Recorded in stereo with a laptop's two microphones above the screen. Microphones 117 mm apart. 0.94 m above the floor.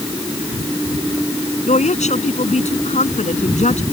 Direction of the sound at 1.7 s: 85° left.